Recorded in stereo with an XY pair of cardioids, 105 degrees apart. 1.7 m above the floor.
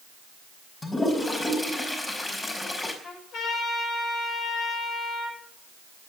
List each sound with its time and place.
0.8 s a toilet flushing: 25° left, 4.5 m
3.0 s a trumpet: 65° left, 7.5 m